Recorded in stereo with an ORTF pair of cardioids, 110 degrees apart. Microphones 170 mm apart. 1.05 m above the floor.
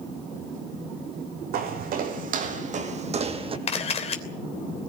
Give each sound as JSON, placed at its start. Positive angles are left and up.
{"t": 1.5, "sound": "footsteps", "azimuth_deg": -70, "distance_m": 3.5}
{"t": 3.7, "sound": "a camera shutter", "azimuth_deg": 35, "distance_m": 3.0}